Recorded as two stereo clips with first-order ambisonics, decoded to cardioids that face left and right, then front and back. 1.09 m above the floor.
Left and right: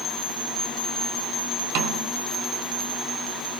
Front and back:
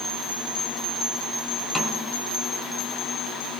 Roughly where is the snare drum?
Right.